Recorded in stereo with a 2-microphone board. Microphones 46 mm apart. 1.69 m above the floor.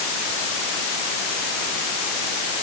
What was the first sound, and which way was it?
Only background noise.